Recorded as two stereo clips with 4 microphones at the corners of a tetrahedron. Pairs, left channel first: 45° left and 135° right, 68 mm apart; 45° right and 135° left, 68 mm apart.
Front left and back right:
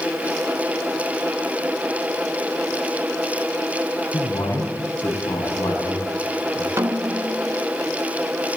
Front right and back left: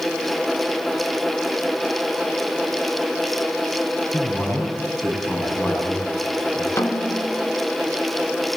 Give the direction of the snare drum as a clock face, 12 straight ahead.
3 o'clock.